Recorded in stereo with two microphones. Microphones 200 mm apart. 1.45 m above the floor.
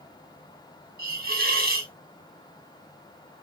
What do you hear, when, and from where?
1.0 s a hiss: 50° right (ahead or behind), 0.9 m